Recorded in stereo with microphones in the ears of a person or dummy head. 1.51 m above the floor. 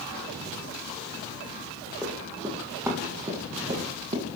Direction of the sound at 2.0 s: 5° left (ahead or behind).